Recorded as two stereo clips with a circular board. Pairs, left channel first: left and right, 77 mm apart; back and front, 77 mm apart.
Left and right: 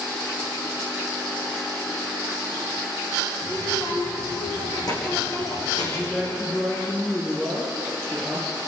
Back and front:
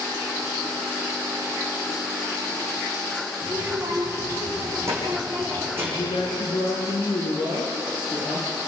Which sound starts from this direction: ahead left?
A child speaking, at 3.4 s.